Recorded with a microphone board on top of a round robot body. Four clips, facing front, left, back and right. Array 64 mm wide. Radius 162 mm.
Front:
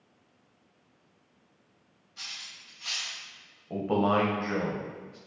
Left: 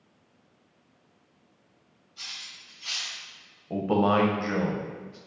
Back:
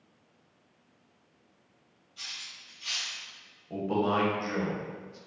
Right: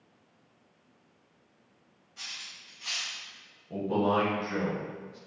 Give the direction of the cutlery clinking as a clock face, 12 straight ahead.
1 o'clock.